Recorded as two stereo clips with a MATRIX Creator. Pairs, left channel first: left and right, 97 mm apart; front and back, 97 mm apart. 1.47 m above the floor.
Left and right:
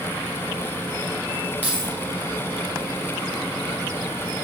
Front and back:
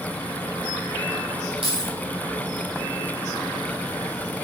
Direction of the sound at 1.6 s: 160° left.